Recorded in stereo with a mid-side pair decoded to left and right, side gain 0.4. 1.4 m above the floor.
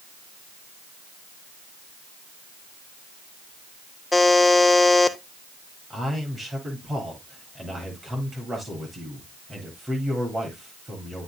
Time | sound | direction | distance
4.1 | a buzzer | 20° left | 1.0 m
5.9 | a man speaking | 25° right | 9 m